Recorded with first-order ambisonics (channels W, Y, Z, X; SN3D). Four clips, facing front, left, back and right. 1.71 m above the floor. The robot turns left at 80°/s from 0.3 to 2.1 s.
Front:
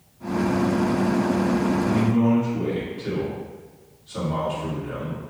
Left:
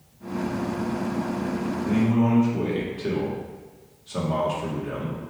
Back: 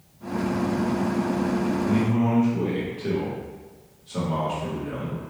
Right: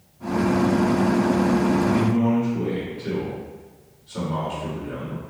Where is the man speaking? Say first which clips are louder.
Right 1 dB, front 2 dB; 130° left, 1.5 m; by 5.2 s 110° left, 1.5 m.